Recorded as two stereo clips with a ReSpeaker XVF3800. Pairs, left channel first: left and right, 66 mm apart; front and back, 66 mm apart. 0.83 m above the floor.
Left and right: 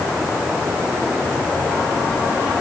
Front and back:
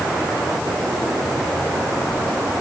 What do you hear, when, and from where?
Only background noise.